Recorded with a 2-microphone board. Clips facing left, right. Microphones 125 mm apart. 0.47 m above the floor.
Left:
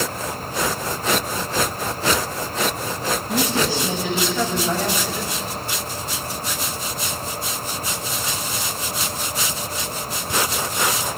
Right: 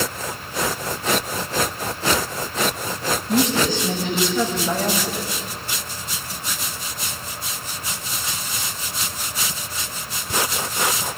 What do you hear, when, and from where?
3.3 s a woman speaking: 10° left (ahead or behind), 2.5 m; by 5.5 s 15° right (ahead or behind), 2.0 m